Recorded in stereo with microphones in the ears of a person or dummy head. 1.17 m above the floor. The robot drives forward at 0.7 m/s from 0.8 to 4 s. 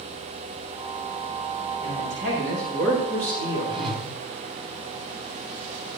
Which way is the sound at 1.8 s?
65° right (ahead or behind).